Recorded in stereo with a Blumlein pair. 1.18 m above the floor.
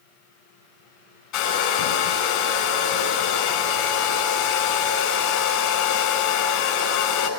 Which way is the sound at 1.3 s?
40° left.